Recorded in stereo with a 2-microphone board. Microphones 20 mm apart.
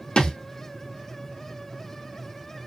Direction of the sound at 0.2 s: 50° left (ahead or behind).